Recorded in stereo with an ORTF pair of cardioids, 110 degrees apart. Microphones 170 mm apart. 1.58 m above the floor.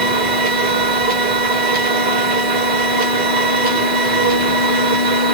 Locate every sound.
0.0 s a machine running: 60° right, 1.3 m